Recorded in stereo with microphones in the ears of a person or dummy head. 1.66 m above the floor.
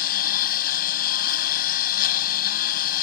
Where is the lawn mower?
50° left (ahead or behind).